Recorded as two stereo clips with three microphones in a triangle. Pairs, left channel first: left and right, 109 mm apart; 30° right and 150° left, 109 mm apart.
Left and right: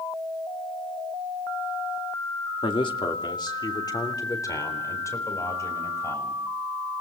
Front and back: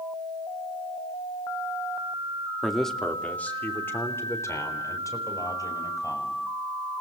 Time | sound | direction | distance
2.6 | a man speaking | 65° left | 2 m